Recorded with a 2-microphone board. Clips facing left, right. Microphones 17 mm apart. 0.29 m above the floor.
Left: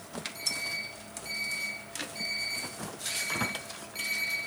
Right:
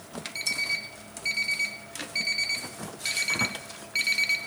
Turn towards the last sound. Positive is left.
turn(degrees=-60)  # may be behind; listen again after turning